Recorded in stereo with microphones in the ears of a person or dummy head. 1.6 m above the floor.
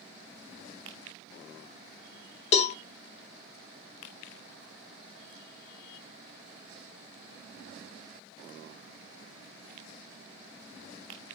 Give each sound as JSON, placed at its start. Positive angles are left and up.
{"t": 2.5, "sound": "a cowbell", "side_deg": 40, "distance_m": 0.6}